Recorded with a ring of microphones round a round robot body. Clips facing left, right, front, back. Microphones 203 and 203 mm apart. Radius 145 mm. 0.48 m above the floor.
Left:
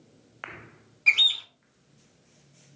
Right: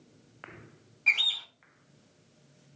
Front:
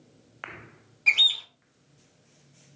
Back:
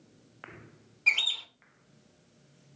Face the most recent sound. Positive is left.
turn(degrees=70)